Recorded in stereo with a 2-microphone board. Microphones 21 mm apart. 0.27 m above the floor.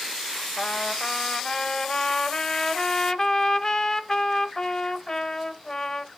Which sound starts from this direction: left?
A trumpet, at 0.6 s.